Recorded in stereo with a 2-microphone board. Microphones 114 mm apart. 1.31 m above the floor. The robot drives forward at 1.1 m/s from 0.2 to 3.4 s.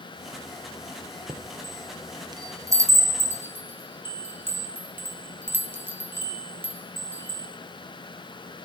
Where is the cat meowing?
No cat meowing in this recording.